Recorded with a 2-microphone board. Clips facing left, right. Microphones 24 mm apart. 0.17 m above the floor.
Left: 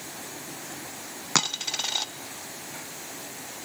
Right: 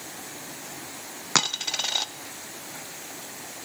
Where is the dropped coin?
5° right (ahead or behind), 0.6 m.